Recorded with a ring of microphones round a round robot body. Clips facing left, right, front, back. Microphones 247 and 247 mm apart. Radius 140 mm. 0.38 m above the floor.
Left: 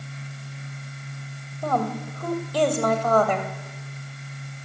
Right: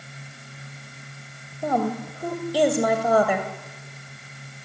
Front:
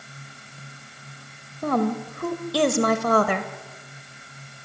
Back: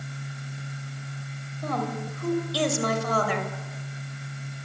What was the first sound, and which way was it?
A woman speaking, 10° right.